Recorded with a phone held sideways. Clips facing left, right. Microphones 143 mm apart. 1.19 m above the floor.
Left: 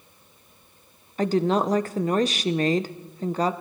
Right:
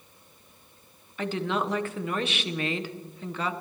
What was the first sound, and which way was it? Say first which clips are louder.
A woman speaking: left 7 dB; 40° left (ahead or behind).